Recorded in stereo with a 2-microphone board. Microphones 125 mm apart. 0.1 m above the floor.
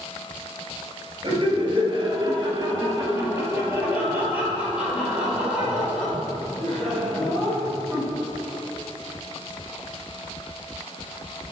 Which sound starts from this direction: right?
Laughter, at 1.2 s.